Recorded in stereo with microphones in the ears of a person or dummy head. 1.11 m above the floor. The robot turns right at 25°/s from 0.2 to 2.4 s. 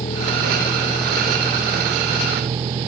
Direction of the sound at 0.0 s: 155° left.